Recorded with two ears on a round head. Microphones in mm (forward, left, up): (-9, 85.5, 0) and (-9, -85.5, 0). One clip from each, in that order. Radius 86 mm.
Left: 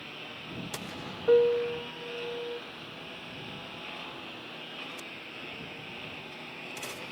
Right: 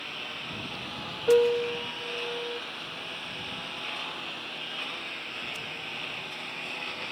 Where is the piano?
10° right (ahead or behind).